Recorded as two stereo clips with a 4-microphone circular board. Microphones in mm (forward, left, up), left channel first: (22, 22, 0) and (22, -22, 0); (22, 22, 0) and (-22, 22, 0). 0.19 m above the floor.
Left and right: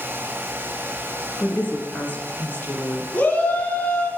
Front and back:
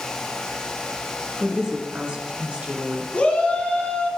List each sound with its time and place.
1.4 s a woman speaking: 115° left, 2 m; by 3.0 s 130° left, 2.5 m
3.1 s a shout: 45° left, 2 m